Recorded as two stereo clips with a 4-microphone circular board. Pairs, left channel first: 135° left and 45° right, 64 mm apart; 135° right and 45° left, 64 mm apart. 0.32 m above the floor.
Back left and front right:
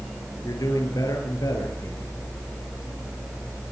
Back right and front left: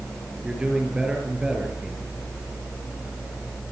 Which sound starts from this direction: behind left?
A man speaking, at 0.4 s.